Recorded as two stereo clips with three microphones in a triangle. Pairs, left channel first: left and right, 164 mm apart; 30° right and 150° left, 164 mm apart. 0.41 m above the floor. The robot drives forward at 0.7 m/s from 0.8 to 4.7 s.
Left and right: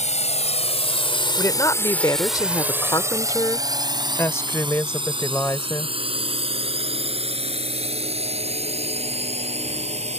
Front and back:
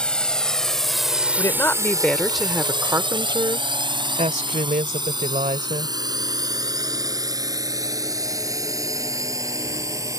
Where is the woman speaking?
30° left; by 6.0 s 160° left.